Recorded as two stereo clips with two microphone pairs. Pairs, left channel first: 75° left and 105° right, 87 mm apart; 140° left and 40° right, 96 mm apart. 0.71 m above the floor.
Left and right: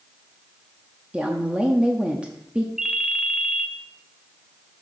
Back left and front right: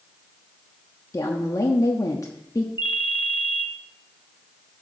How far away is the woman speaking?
About 1.0 m.